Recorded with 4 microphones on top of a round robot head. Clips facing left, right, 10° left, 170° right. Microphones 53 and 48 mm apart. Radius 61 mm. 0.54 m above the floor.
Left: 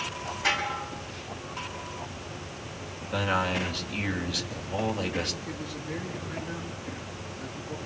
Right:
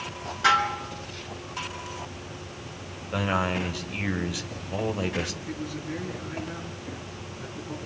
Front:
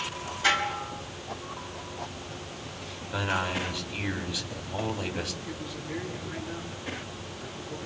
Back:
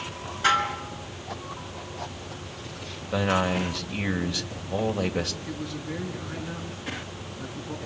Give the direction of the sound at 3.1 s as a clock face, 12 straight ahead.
6 o'clock.